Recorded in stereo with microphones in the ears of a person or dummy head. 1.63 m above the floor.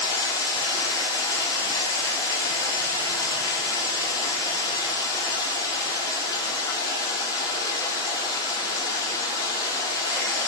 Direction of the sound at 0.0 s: 25° left (ahead or behind).